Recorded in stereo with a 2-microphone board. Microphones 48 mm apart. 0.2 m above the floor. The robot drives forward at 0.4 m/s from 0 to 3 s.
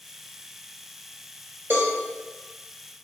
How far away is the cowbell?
About 0.9 m.